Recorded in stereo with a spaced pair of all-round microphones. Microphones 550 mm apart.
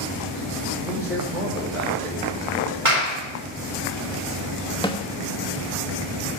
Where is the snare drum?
10° left (ahead or behind), 1.1 m.